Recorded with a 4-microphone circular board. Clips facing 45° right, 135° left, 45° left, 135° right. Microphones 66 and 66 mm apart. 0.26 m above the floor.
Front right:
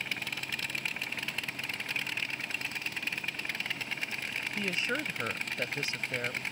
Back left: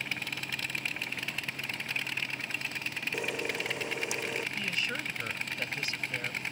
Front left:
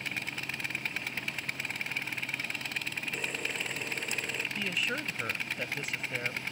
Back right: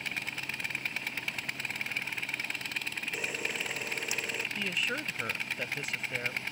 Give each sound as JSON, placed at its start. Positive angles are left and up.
{"t": 3.1, "sound": "a camera shutter", "azimuth_deg": 140}
{"t": 4.6, "sound": "a woman speaking", "azimuth_deg": -45}